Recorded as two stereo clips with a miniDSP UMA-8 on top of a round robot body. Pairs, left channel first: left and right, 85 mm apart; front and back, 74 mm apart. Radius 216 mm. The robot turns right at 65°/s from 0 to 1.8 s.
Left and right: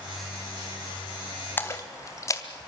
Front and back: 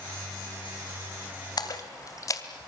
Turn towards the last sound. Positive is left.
turn(degrees=40)